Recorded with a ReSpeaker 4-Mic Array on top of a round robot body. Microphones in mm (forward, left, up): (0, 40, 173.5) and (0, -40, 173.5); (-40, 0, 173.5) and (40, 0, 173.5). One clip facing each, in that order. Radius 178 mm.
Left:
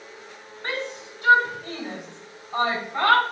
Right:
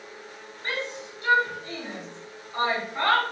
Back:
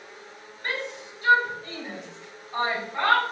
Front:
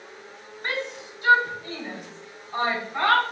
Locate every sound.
0.6 s a shout: 65° left, 6 m; by 3.2 s 85° left, 6.5 m